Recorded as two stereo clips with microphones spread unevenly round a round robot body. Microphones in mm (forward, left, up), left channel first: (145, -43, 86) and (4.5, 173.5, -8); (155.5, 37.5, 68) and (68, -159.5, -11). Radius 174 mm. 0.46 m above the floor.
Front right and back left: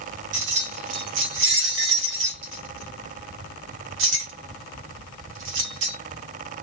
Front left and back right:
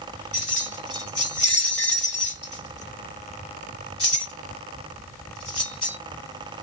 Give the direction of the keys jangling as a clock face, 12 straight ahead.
8 o'clock.